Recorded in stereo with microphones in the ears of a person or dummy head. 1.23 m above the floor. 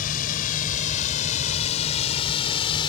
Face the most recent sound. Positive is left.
turn(degrees=25)  # may be behind; listen again after turning